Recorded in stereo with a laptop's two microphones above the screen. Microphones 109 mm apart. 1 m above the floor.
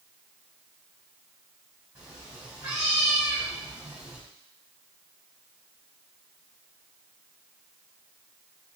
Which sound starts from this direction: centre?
A cat meowing, at 1.9 s.